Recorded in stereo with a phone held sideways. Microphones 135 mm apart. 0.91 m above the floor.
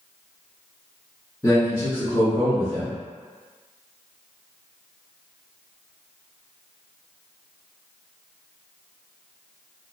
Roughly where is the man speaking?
Left.